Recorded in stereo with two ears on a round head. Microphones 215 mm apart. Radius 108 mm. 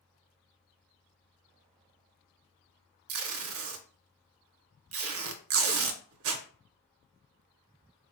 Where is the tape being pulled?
60° right (ahead or behind), 0.5 m.